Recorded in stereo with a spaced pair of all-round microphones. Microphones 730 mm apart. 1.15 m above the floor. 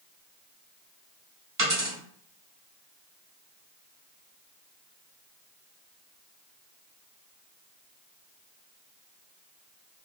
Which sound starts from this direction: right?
A dropped coin, at 1.6 s.